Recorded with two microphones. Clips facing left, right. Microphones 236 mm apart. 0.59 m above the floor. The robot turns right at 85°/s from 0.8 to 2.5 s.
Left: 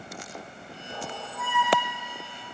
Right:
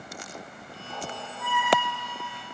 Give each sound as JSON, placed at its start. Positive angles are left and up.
{"t": 0.9, "sound": "a squeak", "azimuth_deg": 35, "distance_m": 8.0}